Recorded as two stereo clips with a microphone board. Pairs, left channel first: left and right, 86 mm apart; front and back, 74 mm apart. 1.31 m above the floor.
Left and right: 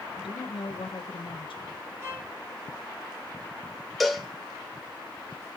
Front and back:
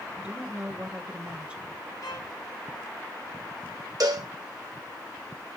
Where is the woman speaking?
110° left, 1.3 m.